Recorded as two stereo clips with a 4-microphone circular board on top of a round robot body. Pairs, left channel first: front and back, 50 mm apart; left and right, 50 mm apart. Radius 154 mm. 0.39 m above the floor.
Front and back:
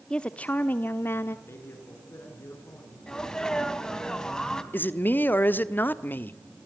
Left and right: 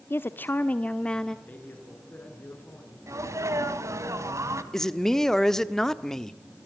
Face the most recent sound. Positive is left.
turn(degrees=15)